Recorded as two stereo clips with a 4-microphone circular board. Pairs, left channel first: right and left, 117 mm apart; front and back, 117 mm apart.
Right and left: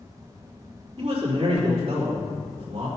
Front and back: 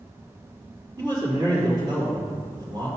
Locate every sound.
1.0 s a man speaking: 135° left, 3.5 m